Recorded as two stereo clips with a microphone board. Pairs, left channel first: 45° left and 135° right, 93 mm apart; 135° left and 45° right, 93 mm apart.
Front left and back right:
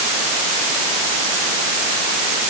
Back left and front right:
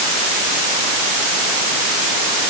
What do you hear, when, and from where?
Only background noise.